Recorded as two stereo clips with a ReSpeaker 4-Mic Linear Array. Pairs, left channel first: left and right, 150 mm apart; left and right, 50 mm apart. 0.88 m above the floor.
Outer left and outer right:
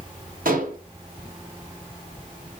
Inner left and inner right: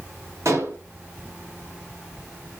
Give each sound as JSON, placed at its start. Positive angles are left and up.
{"t": 0.5, "sound": "dishes clattering", "side_deg": -70, "distance_m": 4.0}